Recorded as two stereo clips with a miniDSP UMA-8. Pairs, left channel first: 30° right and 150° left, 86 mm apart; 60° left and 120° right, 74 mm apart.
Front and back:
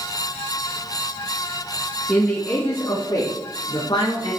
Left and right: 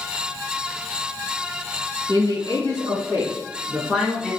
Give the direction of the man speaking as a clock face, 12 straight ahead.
3 o'clock.